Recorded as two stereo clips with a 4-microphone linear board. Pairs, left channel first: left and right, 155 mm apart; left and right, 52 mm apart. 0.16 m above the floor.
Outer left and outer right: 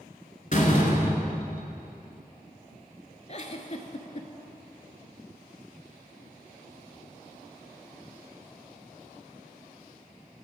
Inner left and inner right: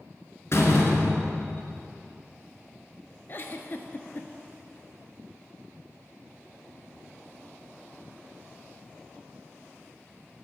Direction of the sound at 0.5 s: 55° left (ahead or behind).